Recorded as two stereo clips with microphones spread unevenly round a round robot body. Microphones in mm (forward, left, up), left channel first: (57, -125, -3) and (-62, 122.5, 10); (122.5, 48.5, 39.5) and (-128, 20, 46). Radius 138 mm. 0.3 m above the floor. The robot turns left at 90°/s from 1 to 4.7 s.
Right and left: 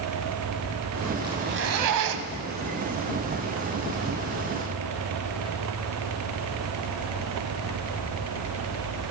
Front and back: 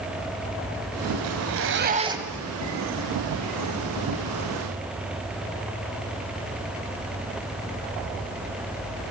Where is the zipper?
170° right, 1.2 m; by 2.5 s 85° left, 1.2 m.